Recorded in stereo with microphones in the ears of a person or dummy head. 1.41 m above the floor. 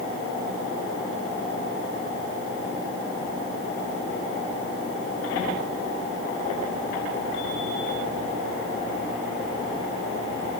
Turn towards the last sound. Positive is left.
No sound to turn to.